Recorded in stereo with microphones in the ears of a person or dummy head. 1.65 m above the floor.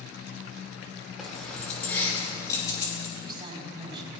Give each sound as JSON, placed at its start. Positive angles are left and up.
{"t": 1.2, "sound": "keys jangling", "side_deg": 0, "distance_m": 3.5}
{"t": 3.2, "sound": "a woman speaking", "side_deg": -25, "distance_m": 5.0}